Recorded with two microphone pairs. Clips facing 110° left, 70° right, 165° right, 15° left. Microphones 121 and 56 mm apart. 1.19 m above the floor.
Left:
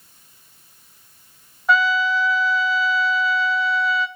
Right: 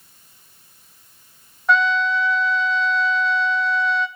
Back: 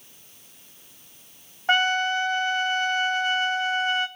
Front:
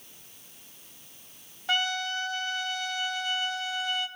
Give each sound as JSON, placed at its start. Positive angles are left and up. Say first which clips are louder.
{"t": 1.7, "sound": "a trumpet", "louder": "even, back 8 dB", "azimuth_deg": -165, "distance_m": 0.5}